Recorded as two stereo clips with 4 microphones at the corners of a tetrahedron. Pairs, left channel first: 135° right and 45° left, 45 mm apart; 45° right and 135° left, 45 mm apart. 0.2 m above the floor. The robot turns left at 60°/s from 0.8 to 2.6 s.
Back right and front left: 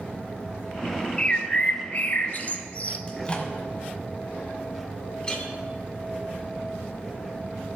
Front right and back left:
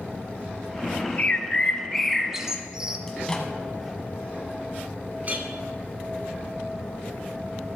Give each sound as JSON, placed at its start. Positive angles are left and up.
{"t": 1.2, "sound": "a bird", "azimuth_deg": -75, "distance_m": 0.7}
{"t": 3.1, "sound": "a microwave", "azimuth_deg": -105, "distance_m": 1.1}
{"t": 5.2, "sound": "a clink", "azimuth_deg": 165, "distance_m": 1.3}